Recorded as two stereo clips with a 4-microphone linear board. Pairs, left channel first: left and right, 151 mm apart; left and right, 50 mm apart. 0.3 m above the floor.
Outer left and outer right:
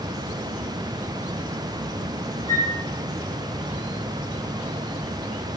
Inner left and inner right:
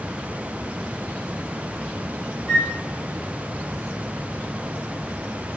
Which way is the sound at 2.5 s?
35° right (ahead or behind).